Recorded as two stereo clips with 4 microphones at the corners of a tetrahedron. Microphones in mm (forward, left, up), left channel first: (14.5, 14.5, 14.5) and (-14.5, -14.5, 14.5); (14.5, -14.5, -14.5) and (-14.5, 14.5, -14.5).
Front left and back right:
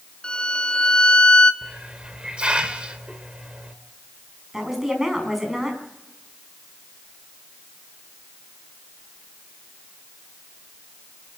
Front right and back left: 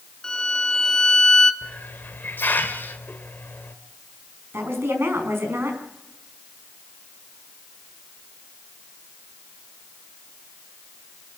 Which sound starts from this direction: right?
A hiss, at 1.6 s.